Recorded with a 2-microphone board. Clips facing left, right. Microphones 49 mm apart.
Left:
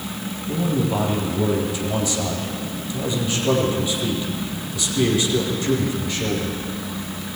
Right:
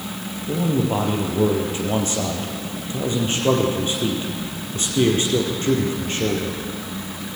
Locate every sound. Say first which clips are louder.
0.5 s a man speaking: right 1 dB; 40° right (ahead or behind), 3.5 m